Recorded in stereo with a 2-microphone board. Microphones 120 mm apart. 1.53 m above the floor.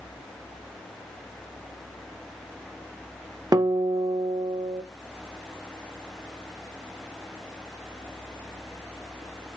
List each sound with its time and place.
3.5 s a guitar: 30° right (ahead or behind), 0.5 m